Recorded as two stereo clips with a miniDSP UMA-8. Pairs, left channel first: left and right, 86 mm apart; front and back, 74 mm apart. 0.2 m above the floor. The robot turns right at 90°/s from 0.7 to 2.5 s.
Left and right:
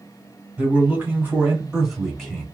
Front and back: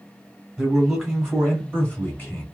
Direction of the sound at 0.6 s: 120° right.